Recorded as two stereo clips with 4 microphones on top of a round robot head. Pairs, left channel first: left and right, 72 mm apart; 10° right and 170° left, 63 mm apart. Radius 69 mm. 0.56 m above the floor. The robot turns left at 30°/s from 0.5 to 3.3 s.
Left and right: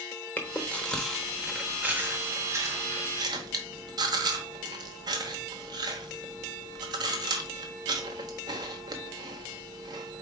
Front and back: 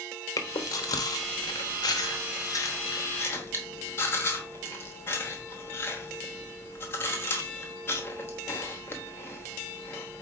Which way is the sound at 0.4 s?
20° left.